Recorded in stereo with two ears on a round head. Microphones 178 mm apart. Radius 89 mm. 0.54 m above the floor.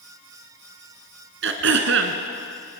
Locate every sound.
1.4 s throat clearing: 70° right (ahead or behind), 2 m